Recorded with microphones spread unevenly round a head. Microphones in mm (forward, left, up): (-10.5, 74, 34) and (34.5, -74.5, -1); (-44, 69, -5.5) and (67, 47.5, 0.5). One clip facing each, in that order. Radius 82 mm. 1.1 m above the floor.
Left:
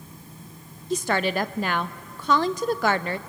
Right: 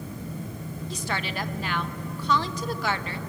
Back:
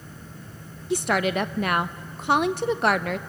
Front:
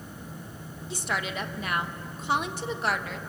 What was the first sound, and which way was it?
A woman speaking, 155° left.